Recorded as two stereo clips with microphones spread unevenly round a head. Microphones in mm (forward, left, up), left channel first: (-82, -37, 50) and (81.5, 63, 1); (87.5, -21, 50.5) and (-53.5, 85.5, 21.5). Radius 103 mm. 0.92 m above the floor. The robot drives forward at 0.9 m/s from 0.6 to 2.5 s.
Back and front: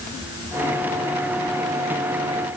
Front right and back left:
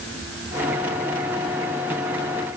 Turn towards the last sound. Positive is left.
No sound to turn to.